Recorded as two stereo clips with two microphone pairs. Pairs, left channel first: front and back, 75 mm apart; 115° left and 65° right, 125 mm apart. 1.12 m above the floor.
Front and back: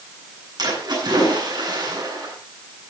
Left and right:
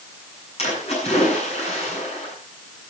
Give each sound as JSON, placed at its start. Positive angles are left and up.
{"t": 0.6, "sound": "a splash", "azimuth_deg": 150, "distance_m": 9.5}